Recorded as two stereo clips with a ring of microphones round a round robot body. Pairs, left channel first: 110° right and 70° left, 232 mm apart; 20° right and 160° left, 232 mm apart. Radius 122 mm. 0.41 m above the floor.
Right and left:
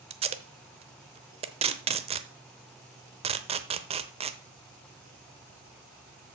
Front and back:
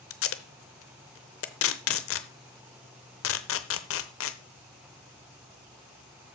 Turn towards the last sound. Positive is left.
turn(degrees=5)